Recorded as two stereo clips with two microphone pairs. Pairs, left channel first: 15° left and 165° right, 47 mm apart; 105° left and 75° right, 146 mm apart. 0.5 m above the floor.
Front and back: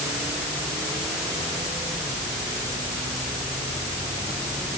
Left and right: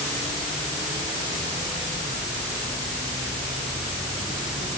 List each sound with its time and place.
Only background noise.